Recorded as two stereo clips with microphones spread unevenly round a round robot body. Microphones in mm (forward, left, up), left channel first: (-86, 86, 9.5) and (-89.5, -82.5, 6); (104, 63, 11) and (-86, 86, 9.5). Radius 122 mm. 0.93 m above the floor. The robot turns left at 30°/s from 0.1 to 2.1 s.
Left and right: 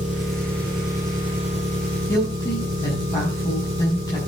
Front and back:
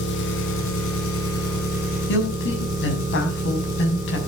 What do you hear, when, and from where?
0.0 s an engine running: 20° left, 4 m; by 4.3 s 40° right, 4 m
2.1 s a woman speaking: 10° left, 6.5 m